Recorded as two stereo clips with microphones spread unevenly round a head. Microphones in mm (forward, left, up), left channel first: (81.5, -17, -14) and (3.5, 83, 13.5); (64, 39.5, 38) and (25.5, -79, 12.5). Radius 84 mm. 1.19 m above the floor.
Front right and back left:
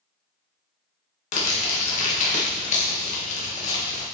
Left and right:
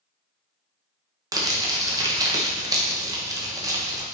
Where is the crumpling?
50° right, 1.3 m.